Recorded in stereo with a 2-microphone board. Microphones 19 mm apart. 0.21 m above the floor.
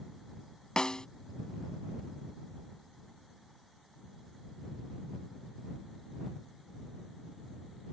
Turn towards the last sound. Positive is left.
turn(degrees=40)  # may be behind; listen again after turning